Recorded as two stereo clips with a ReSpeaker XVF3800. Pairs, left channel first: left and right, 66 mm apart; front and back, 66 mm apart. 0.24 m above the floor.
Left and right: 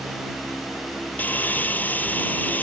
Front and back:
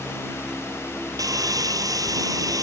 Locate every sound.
1.2 s sawing: 155° left